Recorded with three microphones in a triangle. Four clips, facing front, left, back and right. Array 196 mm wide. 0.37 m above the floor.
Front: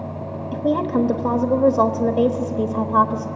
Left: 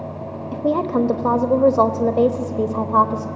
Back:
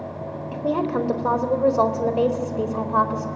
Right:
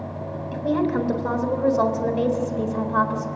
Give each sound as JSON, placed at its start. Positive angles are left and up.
{"t": 0.5, "sound": "a woman speaking", "azimuth_deg": 80, "distance_m": 1.3}